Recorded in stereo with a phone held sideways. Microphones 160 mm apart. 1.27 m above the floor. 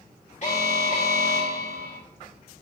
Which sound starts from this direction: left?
An alarm, at 0.4 s.